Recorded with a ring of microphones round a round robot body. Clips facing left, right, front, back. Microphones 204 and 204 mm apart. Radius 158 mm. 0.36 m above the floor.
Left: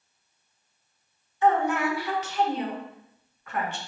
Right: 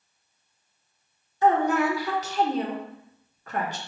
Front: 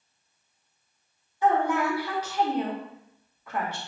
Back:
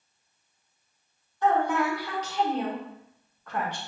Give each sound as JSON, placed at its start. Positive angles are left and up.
{"t": 1.4, "sound": "a woman speaking", "azimuth_deg": -75, "distance_m": 0.9}